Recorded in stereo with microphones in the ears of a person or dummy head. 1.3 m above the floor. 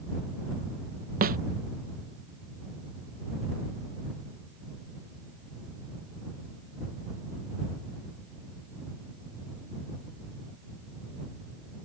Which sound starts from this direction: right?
A snare drum, at 1.2 s.